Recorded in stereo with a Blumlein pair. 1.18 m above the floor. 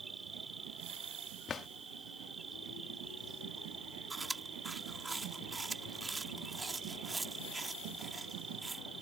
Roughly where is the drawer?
Ahead.